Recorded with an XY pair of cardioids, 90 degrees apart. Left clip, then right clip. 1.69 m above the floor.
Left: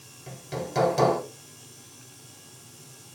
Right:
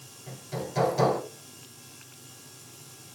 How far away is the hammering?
About 4.5 m.